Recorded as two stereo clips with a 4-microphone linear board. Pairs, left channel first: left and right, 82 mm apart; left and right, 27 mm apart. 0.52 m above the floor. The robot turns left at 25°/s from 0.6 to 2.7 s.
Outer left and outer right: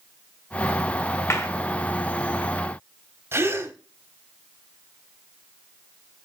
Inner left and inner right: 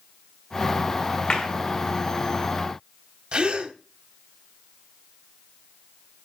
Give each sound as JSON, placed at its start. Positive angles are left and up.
{"t": 1.3, "sound": "a clap", "side_deg": 40, "distance_m": 1.7}
{"t": 3.3, "sound": "a gasp", "side_deg": -30, "distance_m": 0.9}